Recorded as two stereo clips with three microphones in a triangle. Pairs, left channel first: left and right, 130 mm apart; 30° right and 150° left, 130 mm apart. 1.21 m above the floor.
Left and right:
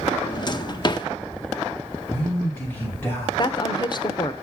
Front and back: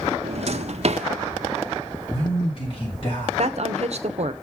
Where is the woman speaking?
135° left, 0.7 m.